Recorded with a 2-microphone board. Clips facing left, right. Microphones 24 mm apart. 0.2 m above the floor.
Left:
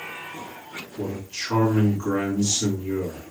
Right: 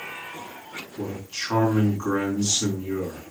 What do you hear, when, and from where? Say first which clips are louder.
1.0 s a man speaking: left 1 dB; 35° right (ahead or behind), 1.8 m